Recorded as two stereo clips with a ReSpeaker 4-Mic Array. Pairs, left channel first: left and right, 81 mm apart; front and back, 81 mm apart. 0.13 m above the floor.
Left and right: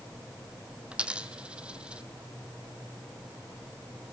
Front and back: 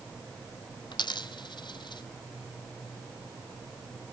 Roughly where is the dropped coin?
Ahead.